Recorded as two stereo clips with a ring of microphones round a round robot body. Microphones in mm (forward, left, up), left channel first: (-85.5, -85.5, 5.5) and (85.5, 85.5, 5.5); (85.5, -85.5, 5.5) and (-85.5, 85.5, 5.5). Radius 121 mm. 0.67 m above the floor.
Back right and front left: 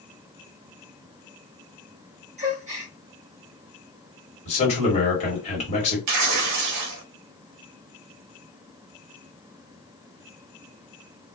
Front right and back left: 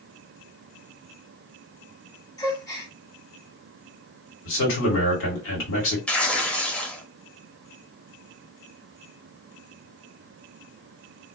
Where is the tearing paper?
40° left, 0.6 m.